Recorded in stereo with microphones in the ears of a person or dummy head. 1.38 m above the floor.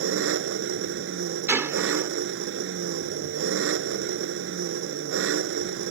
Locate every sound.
0.0 s an engine running: 85° right
1.5 s a gunshot: 15° right (ahead or behind)